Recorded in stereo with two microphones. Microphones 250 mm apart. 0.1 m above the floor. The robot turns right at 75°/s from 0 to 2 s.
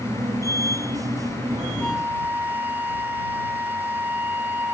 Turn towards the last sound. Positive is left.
turn(degrees=-10)  # may be behind; listen again after turning